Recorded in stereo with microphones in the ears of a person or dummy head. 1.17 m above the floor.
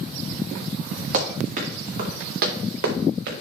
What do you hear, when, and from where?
1.1 s running footsteps: 45° right (ahead or behind), 3.5 m; by 3.3 s 60° right (ahead or behind), 3.5 m